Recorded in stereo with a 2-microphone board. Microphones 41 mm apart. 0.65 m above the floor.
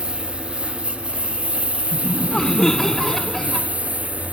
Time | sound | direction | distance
0.0 | a lawn mower | 25° right (ahead or behind) | ?
1.9 | laughter | 15° left (ahead or behind) | ?